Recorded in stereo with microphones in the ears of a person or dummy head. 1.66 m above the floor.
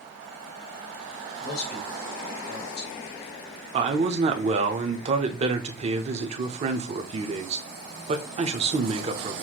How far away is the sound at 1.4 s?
About 2 m.